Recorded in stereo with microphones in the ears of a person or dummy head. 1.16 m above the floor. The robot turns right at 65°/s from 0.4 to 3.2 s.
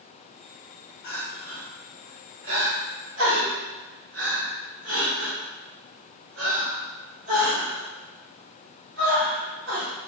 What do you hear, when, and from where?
1.0 s crying: 60° left (ahead or behind), 1.0 m; by 9.9 s 60° right (ahead or behind), 1.0 m